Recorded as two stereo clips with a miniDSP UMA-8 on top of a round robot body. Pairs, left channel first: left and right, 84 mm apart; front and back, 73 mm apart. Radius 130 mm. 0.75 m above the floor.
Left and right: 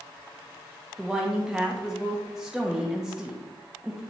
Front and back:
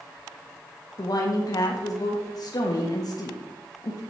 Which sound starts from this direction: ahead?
A woman speaking, at 1.0 s.